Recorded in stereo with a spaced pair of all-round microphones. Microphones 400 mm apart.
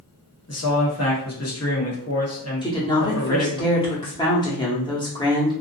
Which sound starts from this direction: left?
A man speaking, at 0.5 s.